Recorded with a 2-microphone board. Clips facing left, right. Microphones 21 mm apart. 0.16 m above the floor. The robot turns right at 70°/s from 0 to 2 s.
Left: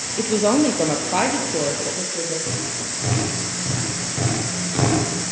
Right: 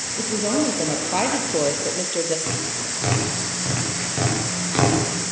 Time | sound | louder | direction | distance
0.2 | a woman speaking | left 5 dB | 100° left | 3 m
2.5 | tapping | even | 30° right (ahead or behind) | 10 m